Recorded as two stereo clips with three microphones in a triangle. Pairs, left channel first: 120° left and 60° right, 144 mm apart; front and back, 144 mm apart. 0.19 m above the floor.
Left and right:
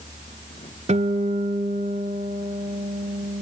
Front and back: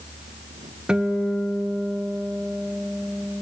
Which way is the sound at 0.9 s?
95° right.